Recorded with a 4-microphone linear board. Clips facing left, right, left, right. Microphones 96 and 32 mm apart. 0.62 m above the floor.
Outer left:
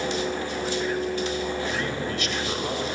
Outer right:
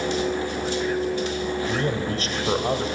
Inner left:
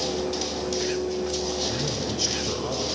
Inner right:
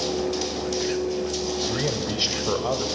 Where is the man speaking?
40° right (ahead or behind), 3 m.